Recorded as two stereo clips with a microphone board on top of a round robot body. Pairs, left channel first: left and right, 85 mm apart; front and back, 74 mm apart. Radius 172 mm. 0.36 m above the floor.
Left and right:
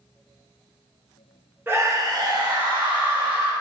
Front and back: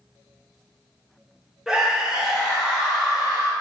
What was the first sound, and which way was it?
A scream, 105° right.